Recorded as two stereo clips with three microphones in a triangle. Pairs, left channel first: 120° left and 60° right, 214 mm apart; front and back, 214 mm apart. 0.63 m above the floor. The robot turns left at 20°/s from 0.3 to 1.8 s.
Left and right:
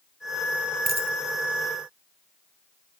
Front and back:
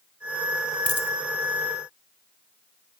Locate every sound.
0.9 s a dropped coin: 10° right, 1.5 m; by 1.1 s 15° right, 1.5 m